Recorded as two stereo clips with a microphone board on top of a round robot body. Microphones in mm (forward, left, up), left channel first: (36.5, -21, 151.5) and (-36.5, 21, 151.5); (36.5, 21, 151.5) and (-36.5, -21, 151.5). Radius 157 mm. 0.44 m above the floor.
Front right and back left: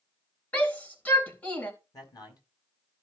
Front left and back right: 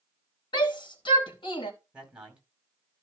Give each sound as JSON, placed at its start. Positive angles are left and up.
{"t": 0.5, "sound": "a shout", "azimuth_deg": 40, "distance_m": 3.5}
{"t": 1.9, "sound": "a man speaking", "azimuth_deg": -70, "distance_m": 4.5}